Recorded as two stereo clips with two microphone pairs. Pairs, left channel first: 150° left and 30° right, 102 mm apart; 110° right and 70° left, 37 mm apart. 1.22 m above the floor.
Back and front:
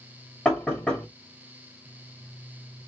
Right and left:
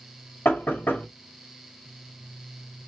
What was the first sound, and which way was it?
Knocking, 135° right.